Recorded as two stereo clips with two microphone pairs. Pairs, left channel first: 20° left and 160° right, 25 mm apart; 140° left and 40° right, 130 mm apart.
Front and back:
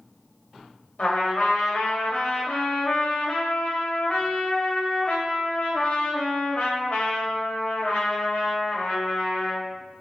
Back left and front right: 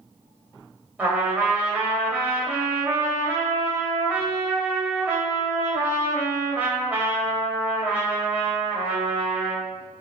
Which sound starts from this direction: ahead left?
A trumpet, at 1.0 s.